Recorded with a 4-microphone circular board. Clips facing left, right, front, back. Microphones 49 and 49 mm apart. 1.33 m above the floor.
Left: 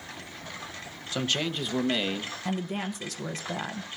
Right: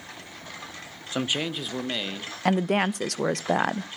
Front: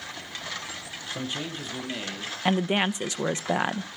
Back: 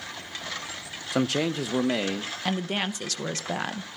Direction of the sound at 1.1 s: 160° right.